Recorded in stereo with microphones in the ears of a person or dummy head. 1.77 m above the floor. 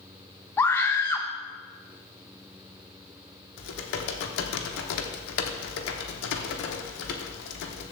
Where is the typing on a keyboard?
70° left (ahead or behind), 1.1 m.